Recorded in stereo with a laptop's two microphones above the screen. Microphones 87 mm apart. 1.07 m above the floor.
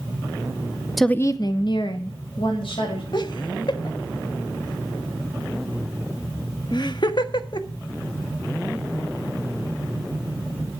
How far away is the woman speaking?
About 0.5 m.